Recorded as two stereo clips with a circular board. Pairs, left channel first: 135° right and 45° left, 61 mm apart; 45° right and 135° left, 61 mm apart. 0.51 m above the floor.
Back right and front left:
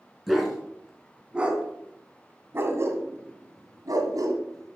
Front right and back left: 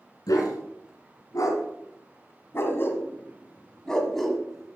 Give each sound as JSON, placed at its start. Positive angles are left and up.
{"t": 0.3, "sound": "a dog barking", "azimuth_deg": -40, "distance_m": 2.5}